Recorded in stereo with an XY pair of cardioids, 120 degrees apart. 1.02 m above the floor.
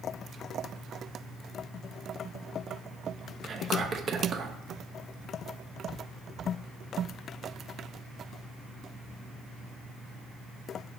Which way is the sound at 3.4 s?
45° right.